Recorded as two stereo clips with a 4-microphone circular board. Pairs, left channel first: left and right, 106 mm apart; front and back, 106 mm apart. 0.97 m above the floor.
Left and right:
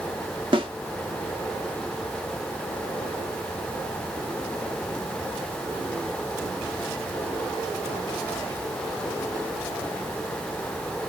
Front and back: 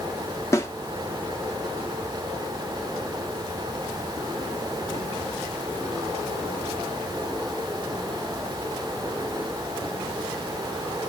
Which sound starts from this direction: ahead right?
A snare drum, at 0.5 s.